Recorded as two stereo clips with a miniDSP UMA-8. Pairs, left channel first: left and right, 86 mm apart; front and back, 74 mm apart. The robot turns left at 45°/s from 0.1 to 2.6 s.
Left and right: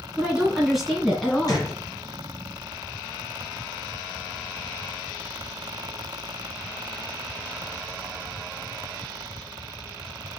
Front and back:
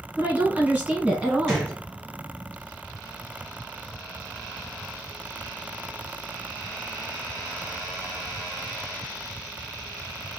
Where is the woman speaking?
145° right, 1.3 m; by 1.7 s 145° left, 1.3 m.